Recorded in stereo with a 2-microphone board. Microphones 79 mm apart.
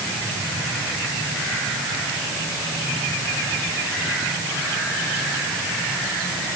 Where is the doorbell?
No doorbell in this recording.